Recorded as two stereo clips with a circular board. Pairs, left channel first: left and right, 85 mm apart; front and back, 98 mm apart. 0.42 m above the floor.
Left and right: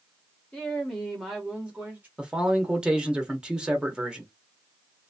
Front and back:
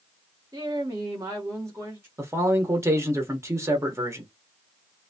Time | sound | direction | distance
0.5 | a woman speaking | 160° left | 1.8 m
2.2 | a man speaking | 160° right | 1.1 m